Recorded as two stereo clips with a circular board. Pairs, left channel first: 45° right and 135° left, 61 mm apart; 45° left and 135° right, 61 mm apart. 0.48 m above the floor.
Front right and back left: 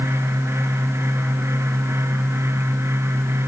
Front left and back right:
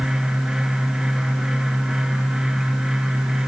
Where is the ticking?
I don't hear ticking.